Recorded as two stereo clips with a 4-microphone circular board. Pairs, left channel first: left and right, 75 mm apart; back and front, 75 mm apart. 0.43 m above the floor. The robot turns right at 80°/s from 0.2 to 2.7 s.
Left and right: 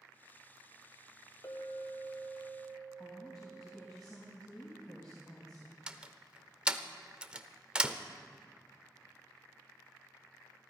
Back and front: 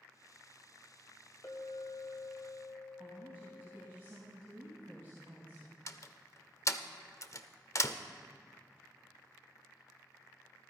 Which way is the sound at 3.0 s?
60° left.